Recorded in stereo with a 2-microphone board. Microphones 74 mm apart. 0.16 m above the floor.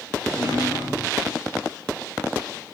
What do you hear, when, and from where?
0.2 s a drawer: 65° left (ahead or behind), 5 m